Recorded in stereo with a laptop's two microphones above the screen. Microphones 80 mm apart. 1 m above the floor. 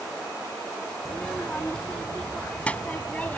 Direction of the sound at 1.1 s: 10° left (ahead or behind).